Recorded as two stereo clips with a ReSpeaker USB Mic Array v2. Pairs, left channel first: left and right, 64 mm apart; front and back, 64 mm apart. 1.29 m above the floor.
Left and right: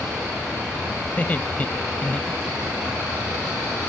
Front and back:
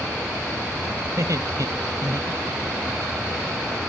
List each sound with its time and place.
1.1 s laughter: 155° left; by 2.9 s 160° left